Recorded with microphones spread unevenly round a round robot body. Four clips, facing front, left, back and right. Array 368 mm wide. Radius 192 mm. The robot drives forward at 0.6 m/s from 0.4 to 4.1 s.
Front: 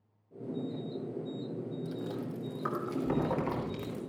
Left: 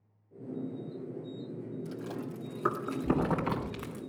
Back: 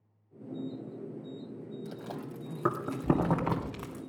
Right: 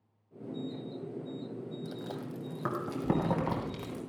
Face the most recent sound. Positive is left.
turn(degrees=-170)